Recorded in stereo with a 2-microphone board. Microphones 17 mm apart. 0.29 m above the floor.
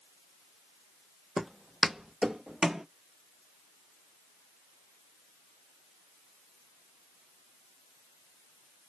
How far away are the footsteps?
About 0.5 m.